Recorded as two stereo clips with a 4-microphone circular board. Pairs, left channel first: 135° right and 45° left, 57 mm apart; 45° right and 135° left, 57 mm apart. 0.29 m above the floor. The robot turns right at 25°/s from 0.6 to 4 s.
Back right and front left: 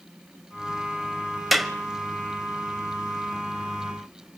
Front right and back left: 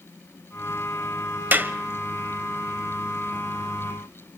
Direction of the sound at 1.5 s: 135° left.